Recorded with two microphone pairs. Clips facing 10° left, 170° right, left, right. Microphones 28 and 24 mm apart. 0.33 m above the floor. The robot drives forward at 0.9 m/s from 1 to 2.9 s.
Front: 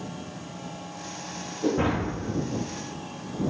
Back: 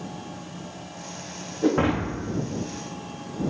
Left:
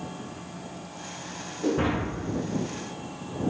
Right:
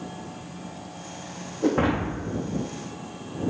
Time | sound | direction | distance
1.6 | breaking glass | 135° right | 3.5 m